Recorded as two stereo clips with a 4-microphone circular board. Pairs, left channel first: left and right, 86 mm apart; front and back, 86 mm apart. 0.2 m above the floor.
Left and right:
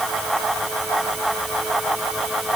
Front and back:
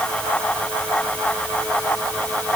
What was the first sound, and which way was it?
Only background noise.